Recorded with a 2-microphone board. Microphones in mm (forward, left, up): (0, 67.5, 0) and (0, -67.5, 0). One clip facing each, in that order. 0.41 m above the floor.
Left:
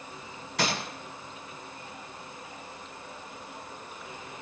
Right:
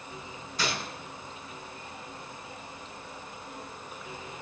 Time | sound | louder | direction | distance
0.6 | a gunshot | left 3 dB | 70° left (ahead or behind) | 6 m